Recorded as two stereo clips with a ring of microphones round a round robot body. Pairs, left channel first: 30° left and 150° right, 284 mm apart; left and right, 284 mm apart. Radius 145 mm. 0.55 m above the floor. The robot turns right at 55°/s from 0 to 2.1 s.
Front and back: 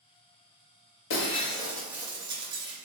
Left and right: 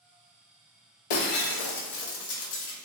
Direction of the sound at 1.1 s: 80° left.